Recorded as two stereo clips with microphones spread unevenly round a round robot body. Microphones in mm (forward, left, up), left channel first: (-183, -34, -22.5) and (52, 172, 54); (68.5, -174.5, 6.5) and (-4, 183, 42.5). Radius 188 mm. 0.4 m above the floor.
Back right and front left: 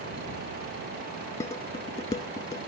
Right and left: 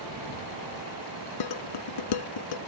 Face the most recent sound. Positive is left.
turn(degrees=-60)